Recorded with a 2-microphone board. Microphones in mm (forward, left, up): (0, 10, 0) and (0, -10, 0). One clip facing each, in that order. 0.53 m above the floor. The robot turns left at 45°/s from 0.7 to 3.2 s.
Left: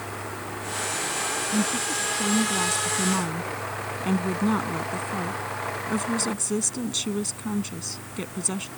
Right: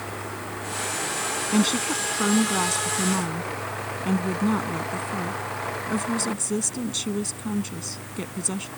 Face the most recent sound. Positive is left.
turn(degrees=175)